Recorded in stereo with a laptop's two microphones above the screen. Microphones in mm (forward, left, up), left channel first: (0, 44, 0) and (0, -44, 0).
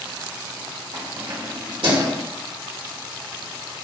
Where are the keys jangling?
80° right, 1.7 m; by 2.1 s 85° right, 3 m.